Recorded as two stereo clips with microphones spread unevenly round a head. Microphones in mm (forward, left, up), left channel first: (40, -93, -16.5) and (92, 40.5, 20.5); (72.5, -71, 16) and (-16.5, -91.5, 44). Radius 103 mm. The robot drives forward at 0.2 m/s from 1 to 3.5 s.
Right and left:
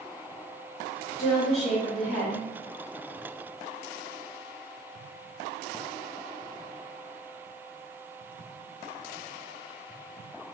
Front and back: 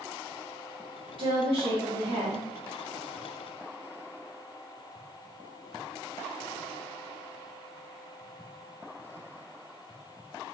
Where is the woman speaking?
135° right, 1.0 m; by 2.5 s 145° right, 1.2 m.